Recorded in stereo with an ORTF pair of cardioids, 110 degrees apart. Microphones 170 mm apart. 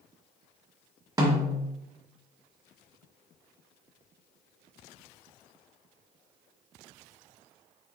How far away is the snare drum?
About 1.3 m.